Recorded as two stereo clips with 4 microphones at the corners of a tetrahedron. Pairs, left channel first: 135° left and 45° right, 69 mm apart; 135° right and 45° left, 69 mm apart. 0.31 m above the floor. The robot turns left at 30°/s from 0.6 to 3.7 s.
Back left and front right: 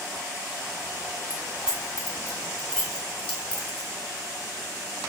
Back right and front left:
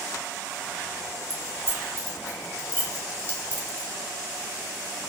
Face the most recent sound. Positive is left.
turn(degrees=180)